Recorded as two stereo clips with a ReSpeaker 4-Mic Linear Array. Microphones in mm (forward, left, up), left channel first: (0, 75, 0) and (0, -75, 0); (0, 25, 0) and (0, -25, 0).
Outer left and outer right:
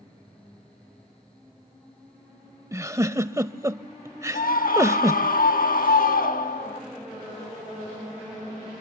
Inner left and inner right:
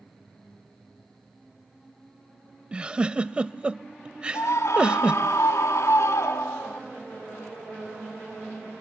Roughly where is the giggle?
Right.